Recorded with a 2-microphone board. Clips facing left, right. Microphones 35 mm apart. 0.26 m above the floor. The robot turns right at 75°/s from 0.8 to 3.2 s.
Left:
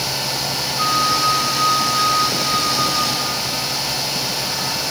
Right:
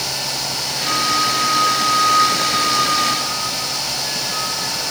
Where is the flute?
70° left, 5 m; by 4.8 s 110° right, 5 m.